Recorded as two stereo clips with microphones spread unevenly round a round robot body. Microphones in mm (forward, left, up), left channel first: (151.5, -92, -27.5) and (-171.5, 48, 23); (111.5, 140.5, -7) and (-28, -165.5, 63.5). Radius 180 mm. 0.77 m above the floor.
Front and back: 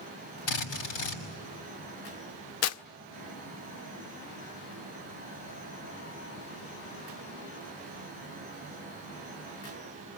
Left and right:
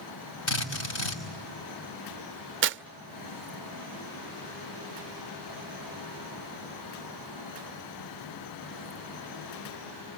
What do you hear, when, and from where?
0.5 s a drill: 15° left, 5.5 m
2.6 s tearing paper: 55° right, 0.6 m